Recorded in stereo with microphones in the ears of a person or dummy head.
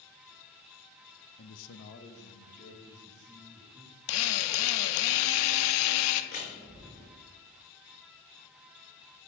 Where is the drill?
80° left, 0.6 m.